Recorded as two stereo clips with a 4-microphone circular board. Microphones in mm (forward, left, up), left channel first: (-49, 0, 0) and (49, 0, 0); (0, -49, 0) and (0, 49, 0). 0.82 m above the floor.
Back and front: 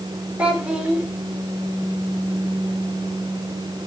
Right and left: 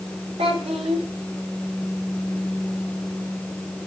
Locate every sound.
0.4 s a child speaking: 80° left, 2.0 m